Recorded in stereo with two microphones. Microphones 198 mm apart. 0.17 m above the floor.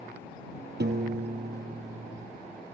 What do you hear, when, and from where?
0.8 s a piano: 70° right (ahead or behind)